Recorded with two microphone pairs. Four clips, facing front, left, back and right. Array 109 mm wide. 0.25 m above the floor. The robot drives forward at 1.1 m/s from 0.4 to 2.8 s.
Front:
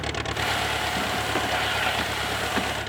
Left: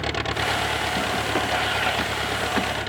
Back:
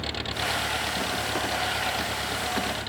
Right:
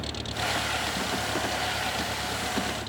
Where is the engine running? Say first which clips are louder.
Left 7 dB, front 3 dB; 75° left; by 2.9 s 80° left.